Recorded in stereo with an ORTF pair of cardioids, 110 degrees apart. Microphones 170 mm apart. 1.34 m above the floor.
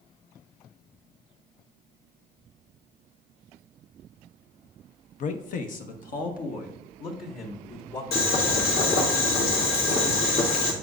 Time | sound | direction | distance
5.2 | a man speaking | 50° left | 0.6 m
8.1 | boiling | 70° left | 1.9 m